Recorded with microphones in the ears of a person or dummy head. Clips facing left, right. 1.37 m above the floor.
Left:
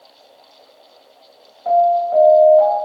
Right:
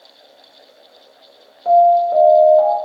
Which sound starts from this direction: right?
An alarm, at 1.6 s.